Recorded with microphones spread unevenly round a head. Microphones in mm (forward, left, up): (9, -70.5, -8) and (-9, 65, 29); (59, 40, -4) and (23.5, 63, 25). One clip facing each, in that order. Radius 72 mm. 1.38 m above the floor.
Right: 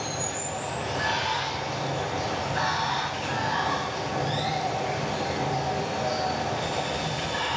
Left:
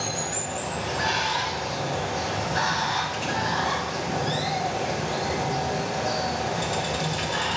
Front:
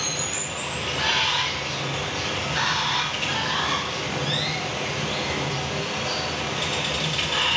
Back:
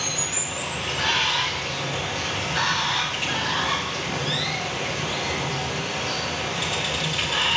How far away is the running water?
About 0.8 m.